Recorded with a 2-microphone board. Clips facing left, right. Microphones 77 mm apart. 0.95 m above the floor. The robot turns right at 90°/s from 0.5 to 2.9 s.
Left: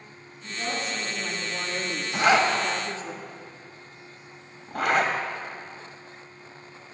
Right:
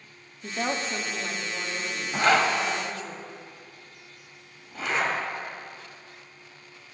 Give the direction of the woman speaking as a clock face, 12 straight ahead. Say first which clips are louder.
Right 2 dB; 2 o'clock.